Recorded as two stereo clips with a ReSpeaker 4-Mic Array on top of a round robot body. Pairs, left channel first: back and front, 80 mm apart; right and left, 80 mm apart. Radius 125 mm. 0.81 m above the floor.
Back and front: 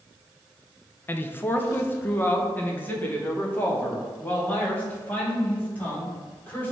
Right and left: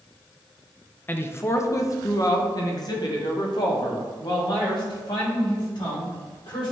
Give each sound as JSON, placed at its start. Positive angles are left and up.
{"t": 1.1, "sound": "a man speaking", "azimuth_deg": -135, "distance_m": 0.9}